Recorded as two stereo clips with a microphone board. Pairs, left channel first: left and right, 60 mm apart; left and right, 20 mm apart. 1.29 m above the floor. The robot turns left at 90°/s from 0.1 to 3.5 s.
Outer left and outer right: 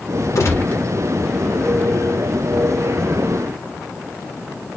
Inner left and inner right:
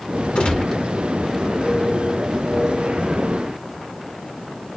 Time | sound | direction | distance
0.3 | a gunshot | 60° left | 1.3 m